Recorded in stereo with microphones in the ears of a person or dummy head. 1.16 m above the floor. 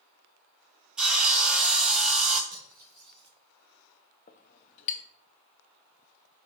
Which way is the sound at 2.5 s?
50° right (ahead or behind).